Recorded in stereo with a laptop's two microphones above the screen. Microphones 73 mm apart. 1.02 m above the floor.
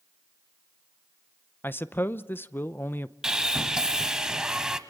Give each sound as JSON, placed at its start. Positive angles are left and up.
{"t": 1.6, "sound": "a man speaking", "side_deg": 25, "distance_m": 0.7}
{"t": 3.2, "sound": "sawing", "side_deg": -10, "distance_m": 0.9}